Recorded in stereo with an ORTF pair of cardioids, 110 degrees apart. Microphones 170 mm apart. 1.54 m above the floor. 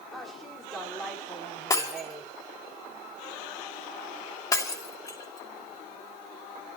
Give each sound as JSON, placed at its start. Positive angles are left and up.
{"t": 0.1, "sound": "a woman speaking", "azimuth_deg": 0, "distance_m": 5.0}
{"t": 1.7, "sound": "breaking glass", "azimuth_deg": 20, "distance_m": 2.5}